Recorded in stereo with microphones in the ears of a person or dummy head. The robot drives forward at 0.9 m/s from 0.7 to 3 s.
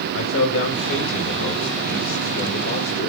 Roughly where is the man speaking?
Left.